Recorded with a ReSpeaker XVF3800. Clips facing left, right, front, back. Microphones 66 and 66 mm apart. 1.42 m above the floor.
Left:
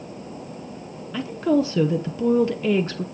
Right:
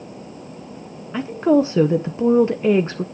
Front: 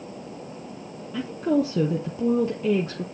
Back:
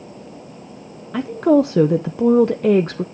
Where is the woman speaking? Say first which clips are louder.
Right 4 dB, back 8 dB; 155° right, 0.6 m.